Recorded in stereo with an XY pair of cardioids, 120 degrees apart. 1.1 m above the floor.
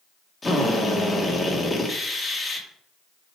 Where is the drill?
20° left, 2 m.